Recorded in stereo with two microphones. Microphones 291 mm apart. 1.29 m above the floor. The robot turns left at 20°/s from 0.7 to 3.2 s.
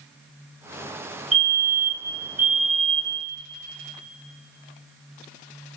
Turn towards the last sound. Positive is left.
turn(degrees=170)